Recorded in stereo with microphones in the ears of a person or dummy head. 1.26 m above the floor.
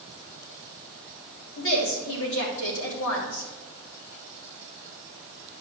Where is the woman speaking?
70° left (ahead or behind), 3 m.